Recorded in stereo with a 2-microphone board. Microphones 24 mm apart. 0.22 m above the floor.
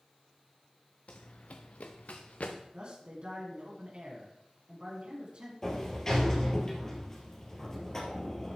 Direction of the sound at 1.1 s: 60° left (ahead or behind).